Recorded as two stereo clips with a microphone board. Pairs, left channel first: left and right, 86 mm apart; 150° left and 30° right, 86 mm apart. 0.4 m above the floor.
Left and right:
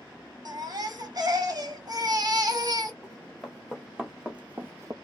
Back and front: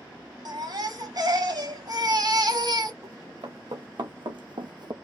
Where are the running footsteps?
5° left, 2.5 m; by 4.9 s 50° right, 0.6 m.